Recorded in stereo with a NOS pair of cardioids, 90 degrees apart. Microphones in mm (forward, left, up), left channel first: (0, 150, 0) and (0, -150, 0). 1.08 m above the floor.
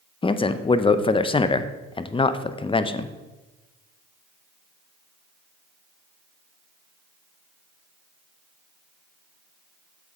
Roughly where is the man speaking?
Ahead.